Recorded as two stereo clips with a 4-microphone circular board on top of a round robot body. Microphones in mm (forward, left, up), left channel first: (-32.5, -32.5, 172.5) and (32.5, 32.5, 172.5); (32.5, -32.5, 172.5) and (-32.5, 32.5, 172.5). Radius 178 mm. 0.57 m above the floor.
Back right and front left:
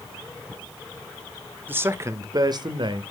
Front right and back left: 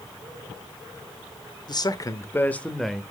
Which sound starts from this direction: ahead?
A man speaking, at 1.7 s.